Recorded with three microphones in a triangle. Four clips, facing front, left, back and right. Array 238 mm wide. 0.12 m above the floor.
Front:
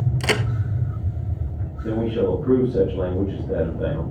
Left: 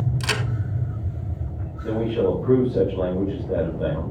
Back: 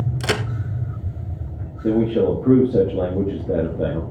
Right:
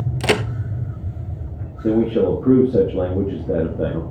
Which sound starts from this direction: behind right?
A man speaking, at 1.8 s.